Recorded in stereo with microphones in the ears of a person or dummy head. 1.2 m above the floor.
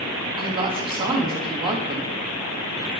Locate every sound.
0.4 s a woman speaking: 25° right (ahead or behind), 1.2 m